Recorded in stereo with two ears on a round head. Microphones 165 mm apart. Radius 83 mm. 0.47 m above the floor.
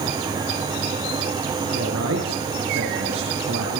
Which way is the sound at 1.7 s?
80° right.